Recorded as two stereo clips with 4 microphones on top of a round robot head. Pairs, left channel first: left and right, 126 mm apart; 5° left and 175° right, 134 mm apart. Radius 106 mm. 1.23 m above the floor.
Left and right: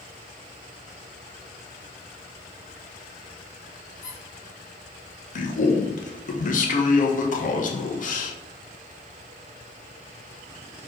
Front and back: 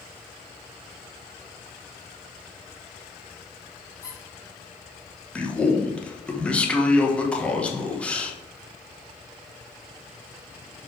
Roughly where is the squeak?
Left.